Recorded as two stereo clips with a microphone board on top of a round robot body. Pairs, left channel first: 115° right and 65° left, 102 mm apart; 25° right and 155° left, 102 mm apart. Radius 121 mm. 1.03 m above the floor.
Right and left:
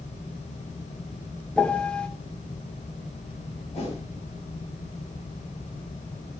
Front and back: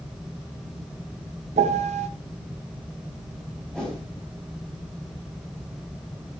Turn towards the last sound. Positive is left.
turn(degrees=-105)